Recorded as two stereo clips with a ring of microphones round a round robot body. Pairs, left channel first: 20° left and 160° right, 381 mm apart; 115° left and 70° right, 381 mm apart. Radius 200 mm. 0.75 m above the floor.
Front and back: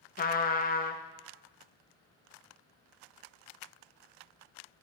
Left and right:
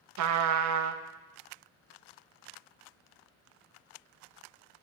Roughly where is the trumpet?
Ahead right.